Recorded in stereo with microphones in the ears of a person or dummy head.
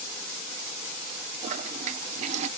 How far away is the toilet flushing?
About 0.9 m.